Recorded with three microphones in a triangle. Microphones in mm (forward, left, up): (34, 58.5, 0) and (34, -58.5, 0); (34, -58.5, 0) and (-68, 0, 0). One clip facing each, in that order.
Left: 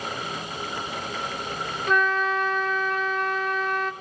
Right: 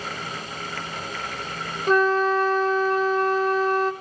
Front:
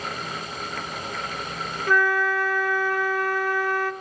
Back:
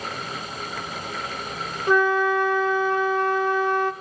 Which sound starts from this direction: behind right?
A flute, at 1.9 s.